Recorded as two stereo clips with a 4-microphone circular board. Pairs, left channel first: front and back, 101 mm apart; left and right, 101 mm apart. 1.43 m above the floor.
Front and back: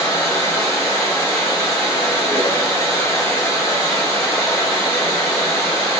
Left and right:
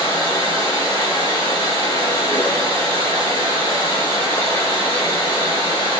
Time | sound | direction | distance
0.0 | running water | 90° left | 1.7 m